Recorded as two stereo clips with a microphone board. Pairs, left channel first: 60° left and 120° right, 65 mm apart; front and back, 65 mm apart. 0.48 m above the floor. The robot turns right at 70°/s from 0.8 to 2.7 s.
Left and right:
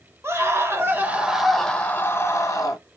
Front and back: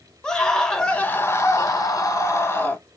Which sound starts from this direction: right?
A scream, at 0.2 s.